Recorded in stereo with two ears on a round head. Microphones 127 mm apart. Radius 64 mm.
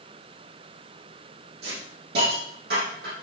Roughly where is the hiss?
Right.